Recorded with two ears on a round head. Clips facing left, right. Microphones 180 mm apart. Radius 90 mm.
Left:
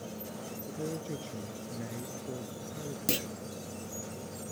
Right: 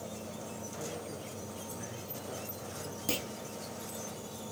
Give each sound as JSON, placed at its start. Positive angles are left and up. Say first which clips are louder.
{"t": 0.7, "sound": "a man speaking", "louder": "left 7 dB", "side_deg": 55}
{"t": 3.1, "sound": "a clunk", "louder": "left 2 dB", "side_deg": 20}